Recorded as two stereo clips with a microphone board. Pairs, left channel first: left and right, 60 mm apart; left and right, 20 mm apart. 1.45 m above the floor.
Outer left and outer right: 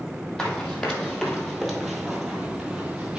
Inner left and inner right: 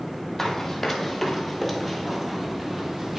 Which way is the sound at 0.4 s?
15° left (ahead or behind).